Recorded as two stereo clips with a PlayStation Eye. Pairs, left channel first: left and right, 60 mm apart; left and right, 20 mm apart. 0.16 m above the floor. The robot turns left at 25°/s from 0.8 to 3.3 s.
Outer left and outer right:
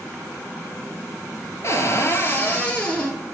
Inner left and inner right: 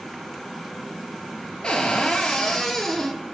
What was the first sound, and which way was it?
A cupboard door, 55° left.